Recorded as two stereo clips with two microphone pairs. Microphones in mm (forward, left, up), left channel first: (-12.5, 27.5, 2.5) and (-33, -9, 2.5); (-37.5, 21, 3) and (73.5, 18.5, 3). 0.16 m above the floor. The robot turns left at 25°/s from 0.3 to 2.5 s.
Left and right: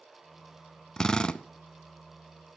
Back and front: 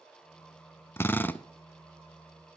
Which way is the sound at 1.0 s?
125° left.